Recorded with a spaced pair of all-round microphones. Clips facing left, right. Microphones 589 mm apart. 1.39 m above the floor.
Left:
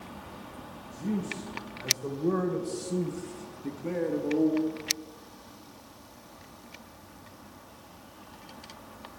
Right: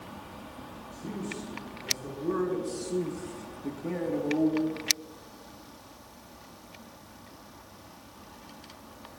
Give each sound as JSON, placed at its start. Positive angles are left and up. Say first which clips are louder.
{"t": 0.9, "sound": "a man speaking", "louder": "left 5 dB", "side_deg": 80, "distance_m": 1.9}